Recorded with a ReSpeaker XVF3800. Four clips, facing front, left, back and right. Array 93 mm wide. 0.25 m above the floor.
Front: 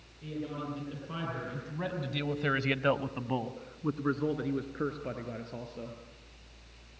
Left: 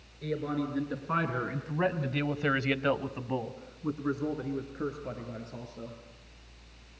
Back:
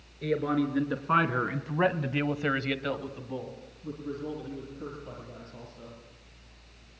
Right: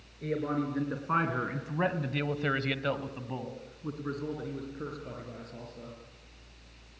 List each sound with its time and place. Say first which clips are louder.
0.2 s a man speaking: right 1 dB, back 10 dB; 165° right, 4 m; by 6.0 s 20° left, 5.5 m